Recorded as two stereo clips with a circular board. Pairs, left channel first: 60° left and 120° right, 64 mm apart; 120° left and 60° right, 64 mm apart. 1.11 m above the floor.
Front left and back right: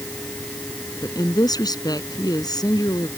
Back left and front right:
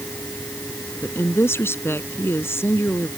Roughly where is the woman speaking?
Ahead left.